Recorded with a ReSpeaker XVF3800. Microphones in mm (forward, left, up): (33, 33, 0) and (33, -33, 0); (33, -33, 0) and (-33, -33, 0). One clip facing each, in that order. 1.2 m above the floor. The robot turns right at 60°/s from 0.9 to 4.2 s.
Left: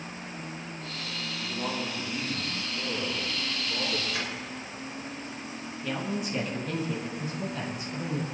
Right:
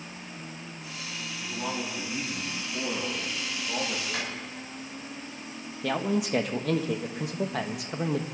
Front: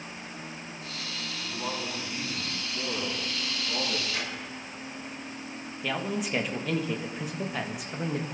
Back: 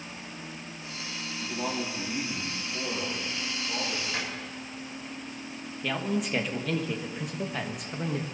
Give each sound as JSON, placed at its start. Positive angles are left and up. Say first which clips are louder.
{"t": 1.4, "sound": "a man speaking", "louder": "even, back 3 dB", "azimuth_deg": 150, "distance_m": 6.0}
{"t": 4.1, "sound": "a drawer", "louder": "even, back 1 dB", "azimuth_deg": -125, "distance_m": 5.0}
{"t": 5.8, "sound": "a man speaking", "louder": "right 5 dB, back 1 dB", "azimuth_deg": -85, "distance_m": 1.4}